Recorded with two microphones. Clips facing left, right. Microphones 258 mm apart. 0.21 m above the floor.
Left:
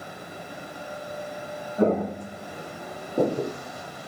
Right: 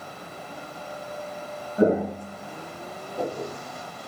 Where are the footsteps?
15° right (ahead or behind), 0.6 m; by 3.5 s 65° left (ahead or behind), 1.0 m.